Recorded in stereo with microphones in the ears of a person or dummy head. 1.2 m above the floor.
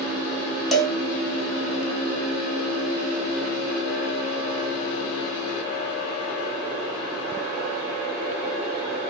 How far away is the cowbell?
About 0.6 m.